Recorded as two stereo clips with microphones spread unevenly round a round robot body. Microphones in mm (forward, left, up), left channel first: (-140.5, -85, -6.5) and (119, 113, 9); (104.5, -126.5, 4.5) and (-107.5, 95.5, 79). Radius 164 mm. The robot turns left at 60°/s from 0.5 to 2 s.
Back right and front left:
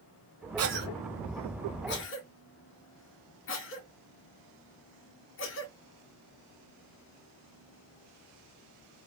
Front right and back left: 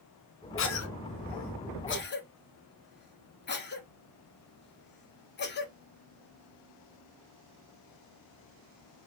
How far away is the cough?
About 1.3 m.